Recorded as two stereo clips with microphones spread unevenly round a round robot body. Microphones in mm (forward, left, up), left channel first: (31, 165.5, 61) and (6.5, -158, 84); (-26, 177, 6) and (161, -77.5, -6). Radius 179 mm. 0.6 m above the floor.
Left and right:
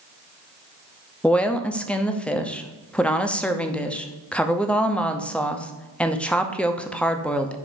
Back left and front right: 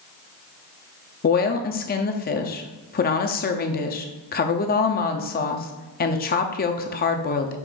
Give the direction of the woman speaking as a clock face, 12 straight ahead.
7 o'clock.